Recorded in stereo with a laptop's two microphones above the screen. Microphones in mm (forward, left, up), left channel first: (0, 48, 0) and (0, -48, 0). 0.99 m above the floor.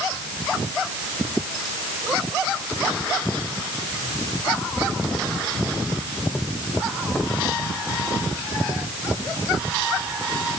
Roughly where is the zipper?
I don't hear a zipper.